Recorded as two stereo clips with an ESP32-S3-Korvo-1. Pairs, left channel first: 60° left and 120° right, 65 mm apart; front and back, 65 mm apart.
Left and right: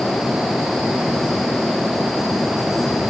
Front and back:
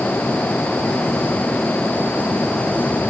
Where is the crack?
No crack in this recording.